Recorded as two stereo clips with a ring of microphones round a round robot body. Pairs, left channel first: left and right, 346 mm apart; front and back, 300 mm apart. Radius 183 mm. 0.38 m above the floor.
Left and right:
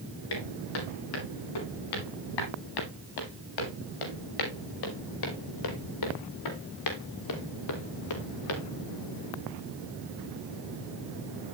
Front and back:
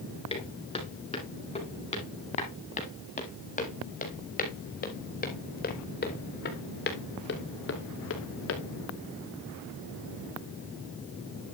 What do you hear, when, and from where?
0.3 s footsteps: 70° left, 9 m; by 8.6 s 45° left, 4 m